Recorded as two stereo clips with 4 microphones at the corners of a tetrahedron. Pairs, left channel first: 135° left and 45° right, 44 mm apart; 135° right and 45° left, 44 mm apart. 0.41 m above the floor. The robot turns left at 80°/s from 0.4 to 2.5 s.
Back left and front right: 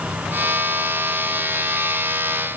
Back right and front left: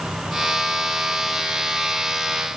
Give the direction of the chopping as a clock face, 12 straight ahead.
I don't hear chopping.